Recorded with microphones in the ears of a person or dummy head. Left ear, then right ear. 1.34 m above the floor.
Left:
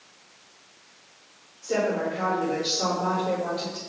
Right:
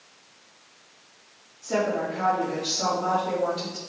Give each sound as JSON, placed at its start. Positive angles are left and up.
{"t": 1.6, "sound": "a woman speaking", "side_deg": -10, "distance_m": 3.0}